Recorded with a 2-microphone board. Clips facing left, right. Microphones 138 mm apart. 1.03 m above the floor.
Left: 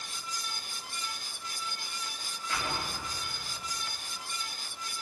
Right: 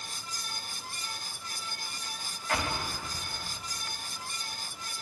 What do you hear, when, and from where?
2.5 s an explosion: 60° right (ahead or behind), 4.5 m